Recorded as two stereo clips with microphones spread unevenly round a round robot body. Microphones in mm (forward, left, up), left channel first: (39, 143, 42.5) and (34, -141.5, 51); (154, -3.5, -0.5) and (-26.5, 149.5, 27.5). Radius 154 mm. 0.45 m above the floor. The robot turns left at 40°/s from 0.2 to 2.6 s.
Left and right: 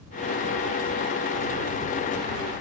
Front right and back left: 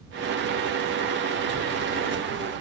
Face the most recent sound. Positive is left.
No sound to turn to.